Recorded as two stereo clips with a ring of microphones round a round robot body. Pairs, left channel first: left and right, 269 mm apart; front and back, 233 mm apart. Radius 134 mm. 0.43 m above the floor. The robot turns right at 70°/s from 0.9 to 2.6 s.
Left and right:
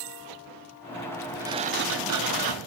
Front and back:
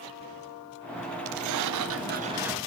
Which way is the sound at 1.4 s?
170° right.